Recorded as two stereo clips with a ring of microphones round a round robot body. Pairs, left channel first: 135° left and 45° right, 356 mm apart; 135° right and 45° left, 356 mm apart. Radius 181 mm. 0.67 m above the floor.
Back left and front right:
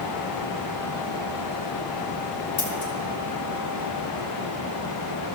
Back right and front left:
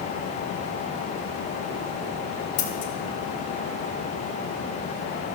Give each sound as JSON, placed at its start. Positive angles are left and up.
{"t": 2.6, "sound": "scissors", "azimuth_deg": -165, "distance_m": 2.5}